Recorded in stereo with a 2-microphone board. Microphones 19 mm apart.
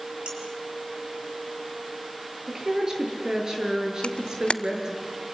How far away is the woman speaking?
About 6.5 m.